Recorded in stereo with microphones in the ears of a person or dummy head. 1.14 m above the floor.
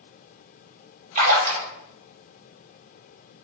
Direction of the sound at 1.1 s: 45° right (ahead or behind).